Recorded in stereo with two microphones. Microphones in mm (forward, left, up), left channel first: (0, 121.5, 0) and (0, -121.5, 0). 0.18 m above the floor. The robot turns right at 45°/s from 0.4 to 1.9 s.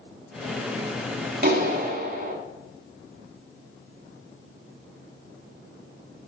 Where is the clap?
40° right (ahead or behind), 1.0 m; by 2.4 s 35° right (ahead or behind), 1.0 m.